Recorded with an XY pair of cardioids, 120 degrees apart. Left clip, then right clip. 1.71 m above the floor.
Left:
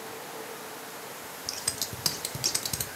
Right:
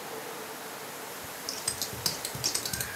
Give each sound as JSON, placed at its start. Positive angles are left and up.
{"t": 1.5, "sound": "scissors", "azimuth_deg": 20, "distance_m": 0.6}